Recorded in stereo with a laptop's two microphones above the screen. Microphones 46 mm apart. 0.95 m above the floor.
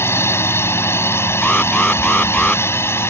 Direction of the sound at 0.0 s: 70° left (ahead or behind).